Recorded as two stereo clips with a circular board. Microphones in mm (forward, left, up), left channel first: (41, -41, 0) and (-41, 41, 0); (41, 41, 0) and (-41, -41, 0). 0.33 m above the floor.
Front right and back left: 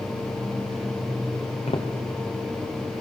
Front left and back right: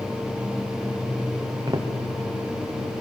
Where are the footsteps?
75° right, 5 m.